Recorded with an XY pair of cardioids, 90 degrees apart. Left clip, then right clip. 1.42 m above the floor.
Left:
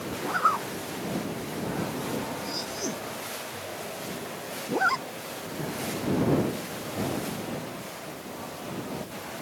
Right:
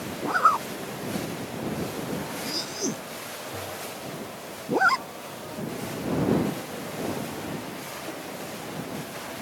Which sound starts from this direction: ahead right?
A zipper, at 0.2 s.